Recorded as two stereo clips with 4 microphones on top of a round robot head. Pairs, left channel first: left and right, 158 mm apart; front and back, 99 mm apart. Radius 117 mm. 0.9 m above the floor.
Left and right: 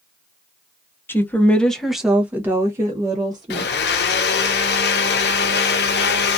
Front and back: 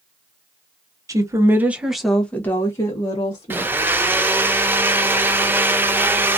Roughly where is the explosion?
I don't hear an explosion.